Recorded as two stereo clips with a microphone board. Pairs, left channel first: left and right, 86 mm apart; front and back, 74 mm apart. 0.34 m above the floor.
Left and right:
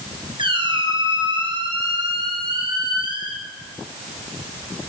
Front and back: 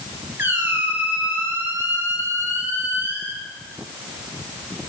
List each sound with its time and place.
0.4 s a squeak: 115° right, 3 m